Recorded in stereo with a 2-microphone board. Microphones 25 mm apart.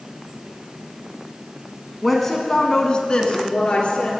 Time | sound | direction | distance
2.0 | a woman speaking | centre (ahead or behind) | 1.1 m